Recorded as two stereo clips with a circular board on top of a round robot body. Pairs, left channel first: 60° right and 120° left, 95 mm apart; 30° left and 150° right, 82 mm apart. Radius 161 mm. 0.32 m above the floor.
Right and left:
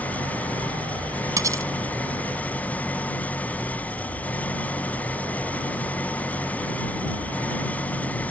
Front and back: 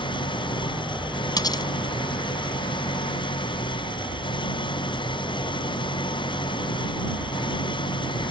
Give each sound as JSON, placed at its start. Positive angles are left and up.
{"t": 0.0, "sound": "an engine running", "azimuth_deg": 15}
{"t": 1.4, "sound": "cutlery clinking", "azimuth_deg": 65}